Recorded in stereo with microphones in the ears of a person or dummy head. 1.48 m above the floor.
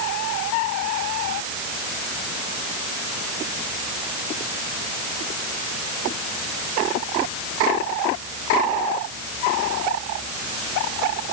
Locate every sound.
Only background noise.